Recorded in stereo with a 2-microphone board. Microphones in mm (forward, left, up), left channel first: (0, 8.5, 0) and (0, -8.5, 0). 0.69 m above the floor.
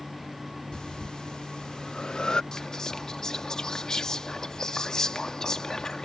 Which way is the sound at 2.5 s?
35° left (ahead or behind).